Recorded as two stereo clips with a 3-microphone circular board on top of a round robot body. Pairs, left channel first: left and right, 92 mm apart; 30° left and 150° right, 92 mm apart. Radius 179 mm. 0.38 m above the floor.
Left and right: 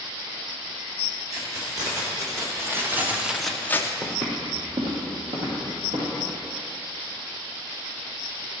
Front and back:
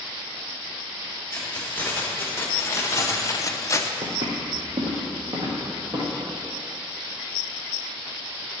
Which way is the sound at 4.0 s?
145° right.